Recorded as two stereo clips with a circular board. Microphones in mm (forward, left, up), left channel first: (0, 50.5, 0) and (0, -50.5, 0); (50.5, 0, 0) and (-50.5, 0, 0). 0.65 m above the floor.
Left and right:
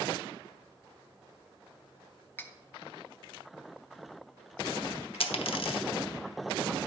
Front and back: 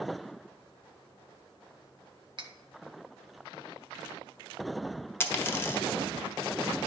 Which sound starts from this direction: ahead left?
A dropped coin, at 5.2 s.